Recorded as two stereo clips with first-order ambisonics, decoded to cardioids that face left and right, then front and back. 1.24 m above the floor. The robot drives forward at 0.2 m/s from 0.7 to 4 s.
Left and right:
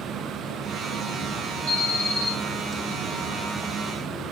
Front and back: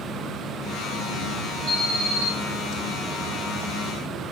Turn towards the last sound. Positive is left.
turn(degrees=-125)